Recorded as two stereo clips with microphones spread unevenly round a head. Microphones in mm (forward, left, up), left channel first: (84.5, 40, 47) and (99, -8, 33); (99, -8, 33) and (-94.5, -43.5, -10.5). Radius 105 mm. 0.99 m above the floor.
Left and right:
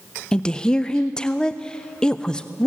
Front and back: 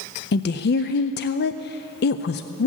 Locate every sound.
0.3 s a woman speaking: 15° left, 0.5 m